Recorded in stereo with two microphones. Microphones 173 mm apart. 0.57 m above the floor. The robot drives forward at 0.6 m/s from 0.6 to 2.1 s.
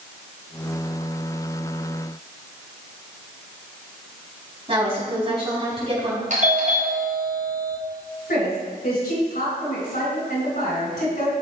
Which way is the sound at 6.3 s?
55° right (ahead or behind).